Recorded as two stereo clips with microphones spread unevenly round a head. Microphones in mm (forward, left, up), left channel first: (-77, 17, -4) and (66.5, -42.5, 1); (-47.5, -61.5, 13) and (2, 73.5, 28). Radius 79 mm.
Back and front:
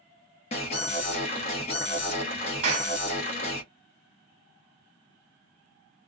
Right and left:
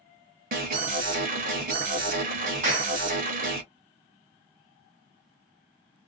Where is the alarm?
100° left, 1.1 m.